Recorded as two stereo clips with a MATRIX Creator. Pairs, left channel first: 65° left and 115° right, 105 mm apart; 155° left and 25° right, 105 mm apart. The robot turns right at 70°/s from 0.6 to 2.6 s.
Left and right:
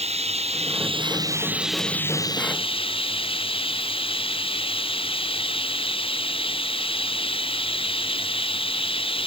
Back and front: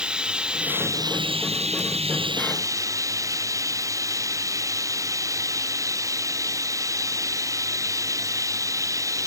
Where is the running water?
105° right; by 9.3 s 35° left.